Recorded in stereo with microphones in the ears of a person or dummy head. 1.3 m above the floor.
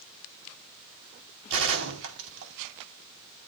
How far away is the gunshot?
About 4.5 m.